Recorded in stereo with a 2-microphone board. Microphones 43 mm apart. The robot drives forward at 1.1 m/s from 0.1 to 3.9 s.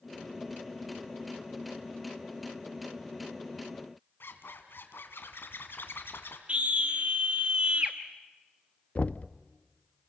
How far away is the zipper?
About 2 m.